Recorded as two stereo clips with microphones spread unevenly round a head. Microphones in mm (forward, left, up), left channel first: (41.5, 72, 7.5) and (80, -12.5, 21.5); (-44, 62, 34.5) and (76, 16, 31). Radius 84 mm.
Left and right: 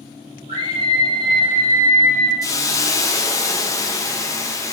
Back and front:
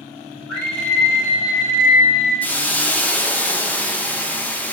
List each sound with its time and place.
0.5 s a scream: 110° right, 3 m; by 2.3 s 90° right, 3 m
2.4 s a hiss: 85° left, 1.1 m